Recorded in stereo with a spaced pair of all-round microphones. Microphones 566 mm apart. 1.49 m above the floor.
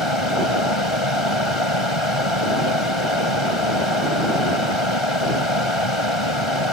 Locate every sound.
0.0 s a fan: 60° left (ahead or behind)